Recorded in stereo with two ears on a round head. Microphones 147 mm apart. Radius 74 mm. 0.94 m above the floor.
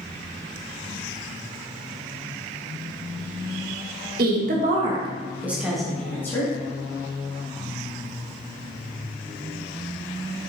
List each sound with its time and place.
4.2 s a woman speaking: 60° right (ahead or behind), 1.4 m; by 6.5 s 20° left (ahead or behind), 1.9 m